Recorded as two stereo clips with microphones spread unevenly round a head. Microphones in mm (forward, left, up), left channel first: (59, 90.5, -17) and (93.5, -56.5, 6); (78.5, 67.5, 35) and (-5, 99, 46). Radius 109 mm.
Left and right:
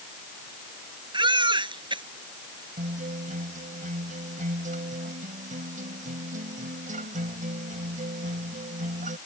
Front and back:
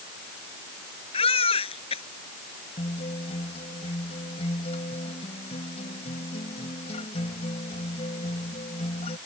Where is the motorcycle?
No motorcycle in this recording.